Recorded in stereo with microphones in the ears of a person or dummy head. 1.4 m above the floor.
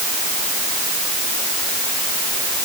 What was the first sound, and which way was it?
Only background noise.